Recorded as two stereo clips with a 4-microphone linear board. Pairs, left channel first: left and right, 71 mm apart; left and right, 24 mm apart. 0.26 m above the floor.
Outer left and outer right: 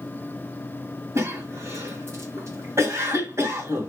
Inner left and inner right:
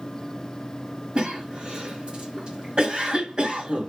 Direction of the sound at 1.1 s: 40° right (ahead or behind).